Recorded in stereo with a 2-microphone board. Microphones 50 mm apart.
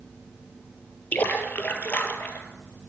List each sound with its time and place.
1.1 s a splash: 35° left (ahead or behind), 1.6 m